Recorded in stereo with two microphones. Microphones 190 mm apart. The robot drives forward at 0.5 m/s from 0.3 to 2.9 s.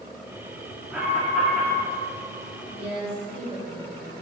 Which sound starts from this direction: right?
A woman speaking, at 2.7 s.